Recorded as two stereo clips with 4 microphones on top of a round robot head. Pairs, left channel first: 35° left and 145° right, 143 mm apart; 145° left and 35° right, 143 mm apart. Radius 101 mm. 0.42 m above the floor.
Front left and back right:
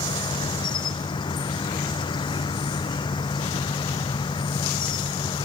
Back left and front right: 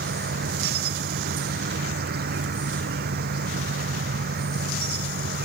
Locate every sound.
0.0 s an insect: 25° right